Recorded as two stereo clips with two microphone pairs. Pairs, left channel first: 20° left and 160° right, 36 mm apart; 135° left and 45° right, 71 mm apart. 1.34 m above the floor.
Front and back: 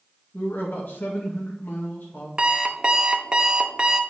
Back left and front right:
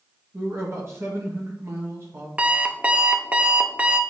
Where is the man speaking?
10° left, 1.7 m.